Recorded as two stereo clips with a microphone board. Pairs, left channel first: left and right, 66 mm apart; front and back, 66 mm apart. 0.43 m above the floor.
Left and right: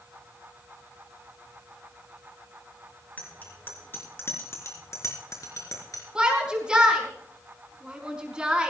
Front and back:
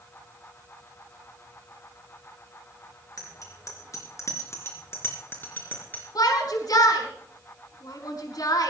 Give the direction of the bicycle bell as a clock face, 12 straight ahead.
11 o'clock.